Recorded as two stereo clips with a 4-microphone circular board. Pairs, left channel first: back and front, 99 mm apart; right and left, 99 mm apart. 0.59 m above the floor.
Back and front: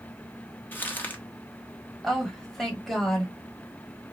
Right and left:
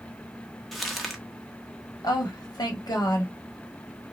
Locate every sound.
0.7 s crumpling: 175° right, 1.0 m
2.0 s a woman speaking: 95° right, 1.4 m